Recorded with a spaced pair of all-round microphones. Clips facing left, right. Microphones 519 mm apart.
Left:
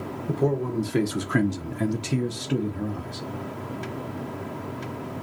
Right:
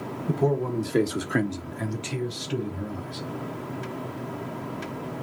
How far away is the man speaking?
About 1.0 m.